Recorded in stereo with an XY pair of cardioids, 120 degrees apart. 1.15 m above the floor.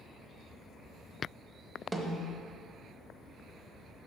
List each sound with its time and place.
1.9 s a snare drum: 5° right, 0.9 m